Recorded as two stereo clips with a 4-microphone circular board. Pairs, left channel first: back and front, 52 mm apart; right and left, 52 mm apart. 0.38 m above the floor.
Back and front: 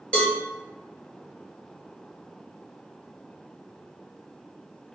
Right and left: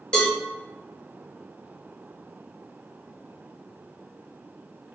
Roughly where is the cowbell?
Behind right.